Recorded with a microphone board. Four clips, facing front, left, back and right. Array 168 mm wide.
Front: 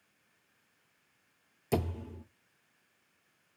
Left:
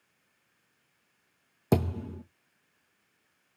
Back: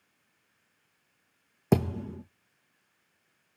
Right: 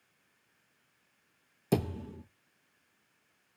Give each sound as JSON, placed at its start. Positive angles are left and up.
{"t": 1.7, "sound": "a thud", "azimuth_deg": 145, "distance_m": 2.0}